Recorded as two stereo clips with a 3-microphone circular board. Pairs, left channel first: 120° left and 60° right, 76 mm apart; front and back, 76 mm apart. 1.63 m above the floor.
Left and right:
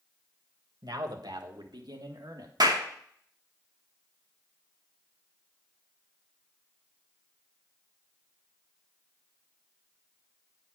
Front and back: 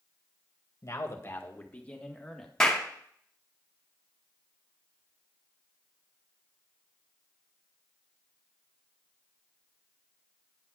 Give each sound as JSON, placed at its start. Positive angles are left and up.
{"t": 0.8, "sound": "a man speaking", "azimuth_deg": -40, "distance_m": 1.5}
{"t": 2.6, "sound": "a clap", "azimuth_deg": -80, "distance_m": 2.0}